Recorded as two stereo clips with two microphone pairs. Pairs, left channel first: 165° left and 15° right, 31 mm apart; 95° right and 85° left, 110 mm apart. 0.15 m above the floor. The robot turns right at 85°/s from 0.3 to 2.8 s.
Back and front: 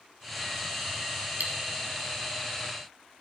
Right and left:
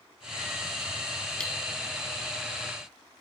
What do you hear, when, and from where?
1.4 s cutlery clinking: 15° right, 2.5 m; by 1.5 s 5° right, 2.5 m